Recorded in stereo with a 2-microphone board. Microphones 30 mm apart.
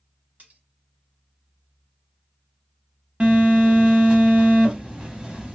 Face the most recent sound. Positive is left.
turn(degrees=-35)  # may be behind; listen again after turning